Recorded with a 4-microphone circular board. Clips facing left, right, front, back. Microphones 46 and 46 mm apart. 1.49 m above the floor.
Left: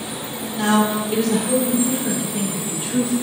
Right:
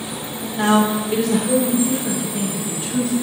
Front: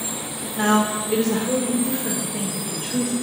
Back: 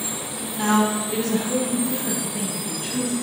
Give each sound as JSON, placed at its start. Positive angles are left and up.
{"t": 0.6, "sound": "a woman speaking", "azimuth_deg": -35, "distance_m": 1.6}